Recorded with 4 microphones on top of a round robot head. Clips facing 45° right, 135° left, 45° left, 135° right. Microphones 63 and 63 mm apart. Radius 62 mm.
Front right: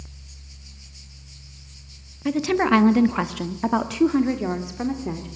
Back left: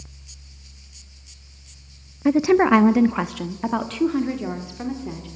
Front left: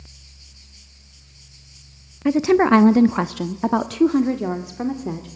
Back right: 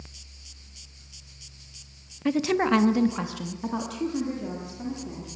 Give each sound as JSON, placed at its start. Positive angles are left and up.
{"t": 2.2, "sound": "a woman speaking", "azimuth_deg": 105, "distance_m": 0.6}